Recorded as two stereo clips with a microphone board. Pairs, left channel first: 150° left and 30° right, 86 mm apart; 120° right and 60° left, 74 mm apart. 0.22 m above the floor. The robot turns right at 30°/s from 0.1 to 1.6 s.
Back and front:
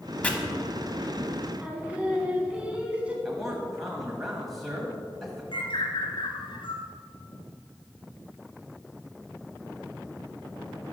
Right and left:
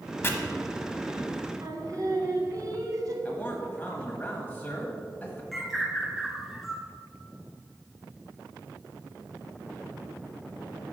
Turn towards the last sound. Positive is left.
turn(degrees=150)